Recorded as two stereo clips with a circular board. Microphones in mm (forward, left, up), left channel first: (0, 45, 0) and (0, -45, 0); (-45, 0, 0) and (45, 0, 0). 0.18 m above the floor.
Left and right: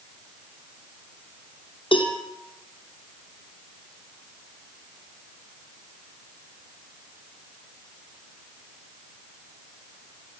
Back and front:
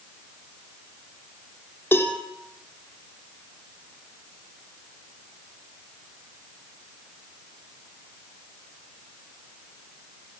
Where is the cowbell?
115° left, 3 m.